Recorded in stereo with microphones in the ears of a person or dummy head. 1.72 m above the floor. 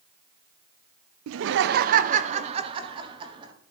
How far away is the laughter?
About 0.5 m.